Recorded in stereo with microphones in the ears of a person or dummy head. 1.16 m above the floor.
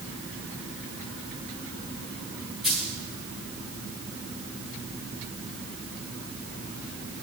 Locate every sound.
2.6 s a dropped coin: 5° right (ahead or behind), 1.3 m